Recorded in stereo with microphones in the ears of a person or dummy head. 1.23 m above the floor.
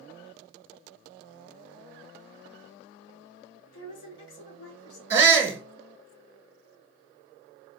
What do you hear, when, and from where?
3.7 s a woman speaking: 70° left (ahead or behind), 2.5 m
5.1 s a shout: 10° right (ahead or behind), 1.2 m